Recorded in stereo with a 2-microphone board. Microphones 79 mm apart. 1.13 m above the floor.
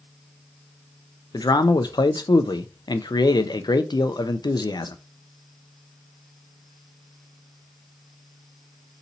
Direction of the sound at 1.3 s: 65° left (ahead or behind).